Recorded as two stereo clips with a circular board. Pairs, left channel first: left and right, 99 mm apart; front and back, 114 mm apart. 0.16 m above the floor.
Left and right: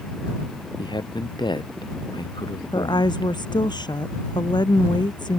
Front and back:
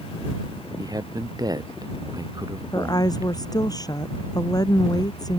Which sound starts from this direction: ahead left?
A woman speaking, at 2.7 s.